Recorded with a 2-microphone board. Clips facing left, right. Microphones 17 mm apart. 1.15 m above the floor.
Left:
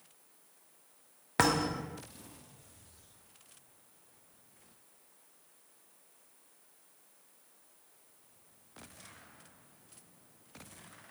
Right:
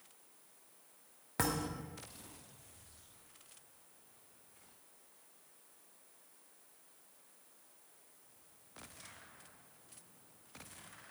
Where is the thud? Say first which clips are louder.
Left 8 dB; 35° left (ahead or behind), 0.6 m.